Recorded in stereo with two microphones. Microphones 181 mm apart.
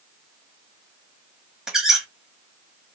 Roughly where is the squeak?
Centre.